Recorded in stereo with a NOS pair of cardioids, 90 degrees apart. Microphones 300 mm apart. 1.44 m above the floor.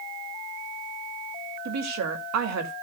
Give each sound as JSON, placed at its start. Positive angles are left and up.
{"t": 1.6, "sound": "a woman speaking", "azimuth_deg": -65, "distance_m": 2.5}